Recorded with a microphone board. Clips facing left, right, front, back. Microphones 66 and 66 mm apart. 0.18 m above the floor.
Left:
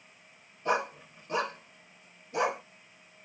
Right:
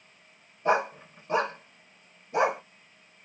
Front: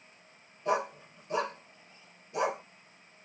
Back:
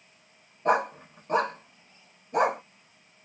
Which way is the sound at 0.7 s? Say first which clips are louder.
Right 4 dB, back 6 dB; 150° right.